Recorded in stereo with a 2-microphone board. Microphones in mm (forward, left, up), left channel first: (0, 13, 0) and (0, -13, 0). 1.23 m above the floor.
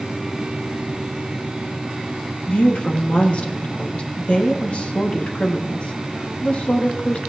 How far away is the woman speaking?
About 1.6 m.